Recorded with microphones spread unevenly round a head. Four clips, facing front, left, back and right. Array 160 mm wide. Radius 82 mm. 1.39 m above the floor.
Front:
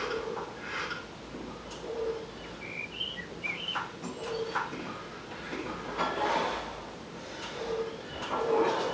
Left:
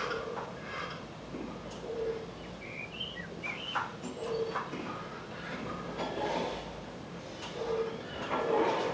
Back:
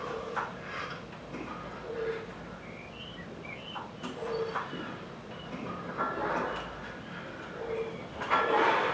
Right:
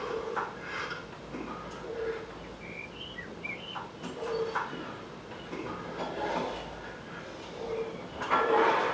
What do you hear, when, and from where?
2.4 s a bird: 90° left, 1.1 m